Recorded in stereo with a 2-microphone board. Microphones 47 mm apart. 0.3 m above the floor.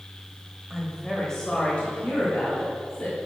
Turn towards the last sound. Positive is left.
turn(degrees=40)  # may be behind; listen again after turning